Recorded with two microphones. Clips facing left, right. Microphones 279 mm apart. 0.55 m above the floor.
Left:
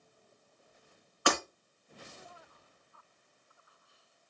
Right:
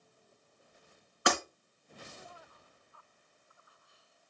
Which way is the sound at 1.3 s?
20° right (ahead or behind).